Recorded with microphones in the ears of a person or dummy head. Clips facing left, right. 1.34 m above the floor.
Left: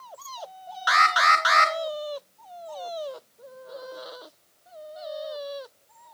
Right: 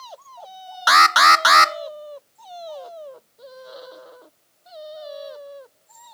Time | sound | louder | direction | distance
0.9 | an alarm | right 6 dB | 60° right (ahead or behind) | 0.7 m